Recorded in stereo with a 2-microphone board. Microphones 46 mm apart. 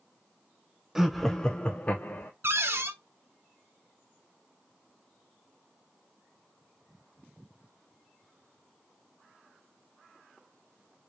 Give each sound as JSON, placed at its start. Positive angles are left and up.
{"t": 0.9, "sound": "laughter", "side_deg": -5, "distance_m": 0.7}
{"t": 2.4, "sound": "a cupboard door", "side_deg": -65, "distance_m": 0.6}